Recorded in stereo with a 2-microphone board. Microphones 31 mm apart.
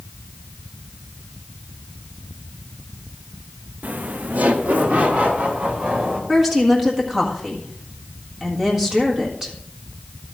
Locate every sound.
3.8 s laughter: 55° right (ahead or behind), 0.7 m; by 6.2 s 50° right (ahead or behind), 4 m
6.3 s a woman speaking: 10° right (ahead or behind), 1.7 m